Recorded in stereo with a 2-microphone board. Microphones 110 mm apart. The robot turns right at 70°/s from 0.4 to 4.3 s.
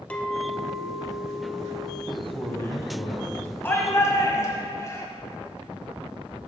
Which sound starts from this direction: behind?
A clink, at 0.1 s.